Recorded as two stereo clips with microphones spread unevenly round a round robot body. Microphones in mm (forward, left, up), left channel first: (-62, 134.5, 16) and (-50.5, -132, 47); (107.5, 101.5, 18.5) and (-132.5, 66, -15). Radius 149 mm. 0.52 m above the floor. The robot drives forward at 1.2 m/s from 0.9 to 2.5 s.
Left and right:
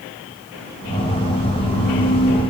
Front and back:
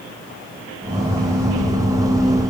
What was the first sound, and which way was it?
Only background noise.